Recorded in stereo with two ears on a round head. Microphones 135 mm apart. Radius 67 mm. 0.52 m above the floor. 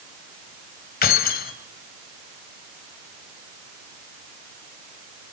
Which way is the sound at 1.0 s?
65° left (ahead or behind).